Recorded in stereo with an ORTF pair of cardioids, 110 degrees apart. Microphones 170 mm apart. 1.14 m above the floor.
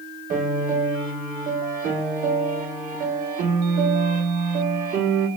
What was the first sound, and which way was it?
A piano, 55° right.